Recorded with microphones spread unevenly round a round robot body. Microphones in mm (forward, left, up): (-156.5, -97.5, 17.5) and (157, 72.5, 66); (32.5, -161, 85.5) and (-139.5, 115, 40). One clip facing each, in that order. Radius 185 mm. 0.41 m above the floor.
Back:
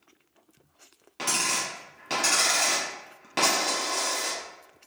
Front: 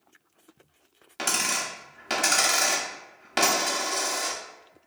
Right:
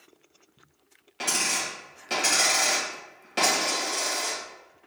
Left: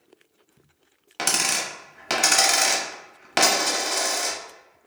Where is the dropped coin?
100° left, 0.8 m.